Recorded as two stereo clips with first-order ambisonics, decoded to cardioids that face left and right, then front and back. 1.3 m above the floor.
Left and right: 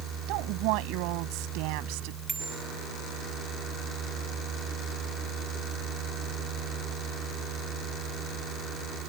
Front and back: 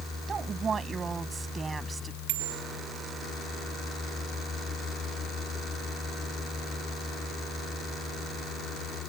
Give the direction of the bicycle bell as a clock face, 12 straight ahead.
6 o'clock.